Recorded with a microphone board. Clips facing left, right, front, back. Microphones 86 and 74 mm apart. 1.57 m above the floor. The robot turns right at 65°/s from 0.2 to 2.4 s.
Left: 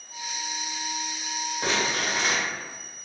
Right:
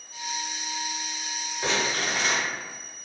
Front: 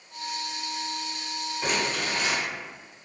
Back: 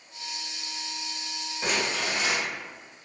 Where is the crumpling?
90° left, 1.7 m; by 2.4 s 140° left, 1.7 m.